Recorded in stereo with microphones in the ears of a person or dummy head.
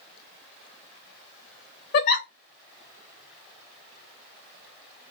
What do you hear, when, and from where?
1.9 s a giggle: 50° left (ahead or behind), 0.8 m